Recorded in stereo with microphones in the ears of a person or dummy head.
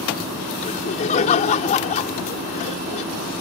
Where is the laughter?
40° left (ahead or behind).